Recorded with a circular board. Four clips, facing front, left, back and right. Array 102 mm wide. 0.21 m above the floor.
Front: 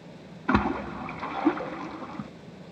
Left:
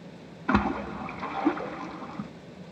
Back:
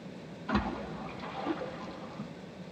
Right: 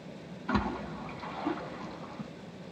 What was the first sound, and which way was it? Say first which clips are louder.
A splash: left 6 dB, front 8 dB; 35° left.